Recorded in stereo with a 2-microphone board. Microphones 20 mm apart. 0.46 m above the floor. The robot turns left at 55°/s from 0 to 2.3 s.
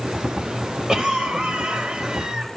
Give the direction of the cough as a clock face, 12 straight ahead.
1 o'clock.